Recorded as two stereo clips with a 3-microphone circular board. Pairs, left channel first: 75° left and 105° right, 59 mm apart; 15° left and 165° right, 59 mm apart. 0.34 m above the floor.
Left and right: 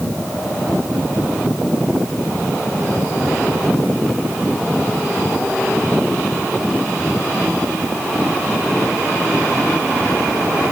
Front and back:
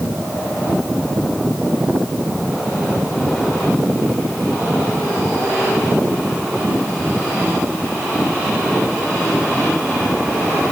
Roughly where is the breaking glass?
I don't hear breaking glass.